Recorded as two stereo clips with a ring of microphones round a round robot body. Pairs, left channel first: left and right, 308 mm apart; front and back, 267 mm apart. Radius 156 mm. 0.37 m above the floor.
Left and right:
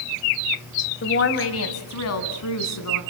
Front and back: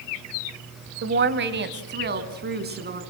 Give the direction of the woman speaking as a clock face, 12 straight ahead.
7 o'clock.